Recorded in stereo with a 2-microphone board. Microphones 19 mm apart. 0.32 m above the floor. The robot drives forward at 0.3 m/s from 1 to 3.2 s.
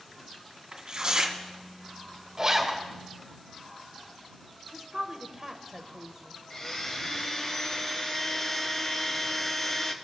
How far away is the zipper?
About 1.6 m.